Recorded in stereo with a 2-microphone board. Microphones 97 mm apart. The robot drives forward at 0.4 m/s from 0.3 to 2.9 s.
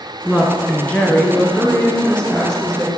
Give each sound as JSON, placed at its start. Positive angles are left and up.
{"t": 0.2, "sound": "a woman speaking", "side_deg": 20, "distance_m": 1.2}